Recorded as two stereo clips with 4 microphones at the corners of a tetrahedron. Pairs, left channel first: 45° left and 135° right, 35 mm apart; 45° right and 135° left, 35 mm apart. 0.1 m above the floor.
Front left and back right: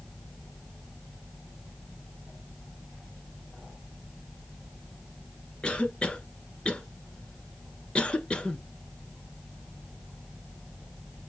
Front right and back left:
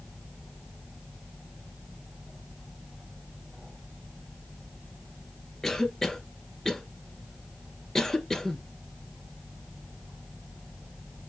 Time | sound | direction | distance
5.6 | a cough | 15° left | 1.3 m